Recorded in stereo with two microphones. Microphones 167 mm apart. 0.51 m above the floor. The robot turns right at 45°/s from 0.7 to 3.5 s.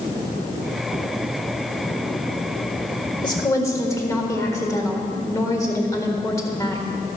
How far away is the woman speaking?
About 1.6 m.